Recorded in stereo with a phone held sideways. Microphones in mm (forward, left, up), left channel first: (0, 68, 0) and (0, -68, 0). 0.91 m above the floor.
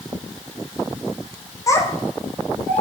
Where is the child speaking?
25° left (ahead or behind), 0.6 m; by 2.8 s 5° left (ahead or behind), 1.2 m.